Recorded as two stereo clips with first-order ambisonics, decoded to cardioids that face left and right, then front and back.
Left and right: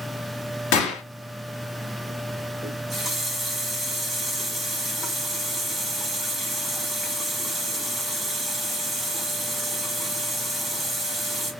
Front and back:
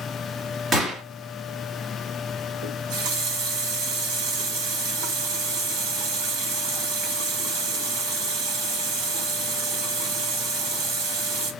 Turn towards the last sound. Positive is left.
turn(degrees=180)